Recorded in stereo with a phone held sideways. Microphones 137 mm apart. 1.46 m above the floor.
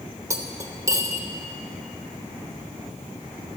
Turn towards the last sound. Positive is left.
turn(degrees=-25)  # may be behind; listen again after turning